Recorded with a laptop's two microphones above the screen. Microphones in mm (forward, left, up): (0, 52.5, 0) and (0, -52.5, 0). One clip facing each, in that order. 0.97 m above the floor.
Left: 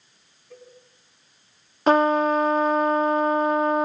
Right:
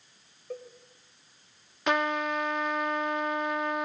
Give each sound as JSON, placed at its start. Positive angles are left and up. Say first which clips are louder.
{"t": 0.5, "sound": "a cowbell", "louder": "right 7 dB", "side_deg": -75, "distance_m": 4.0}
{"t": 1.9, "sound": "a trumpet", "louder": "left 10 dB", "side_deg": 35, "distance_m": 0.5}